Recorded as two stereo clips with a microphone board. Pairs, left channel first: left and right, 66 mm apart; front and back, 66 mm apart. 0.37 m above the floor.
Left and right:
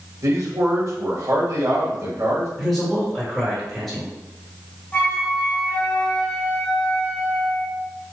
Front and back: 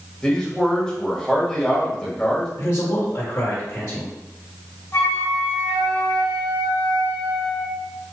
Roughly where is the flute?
Ahead left.